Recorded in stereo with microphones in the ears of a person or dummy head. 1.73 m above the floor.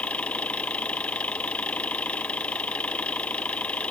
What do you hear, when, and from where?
0.0 s an engine running: 5° left (ahead or behind)